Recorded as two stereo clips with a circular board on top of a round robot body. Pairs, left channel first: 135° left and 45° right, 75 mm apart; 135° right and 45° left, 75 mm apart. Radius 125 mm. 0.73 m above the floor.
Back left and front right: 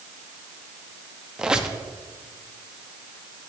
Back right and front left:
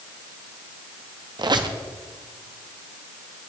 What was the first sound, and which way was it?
A squeak, 35° left.